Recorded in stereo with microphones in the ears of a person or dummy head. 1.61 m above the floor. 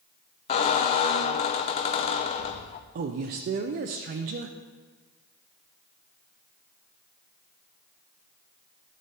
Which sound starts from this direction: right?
A man speaking, at 3.0 s.